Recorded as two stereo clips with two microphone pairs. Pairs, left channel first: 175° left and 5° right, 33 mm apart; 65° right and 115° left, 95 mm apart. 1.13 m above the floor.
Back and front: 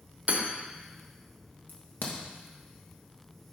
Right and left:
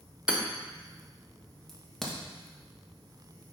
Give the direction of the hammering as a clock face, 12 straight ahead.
11 o'clock.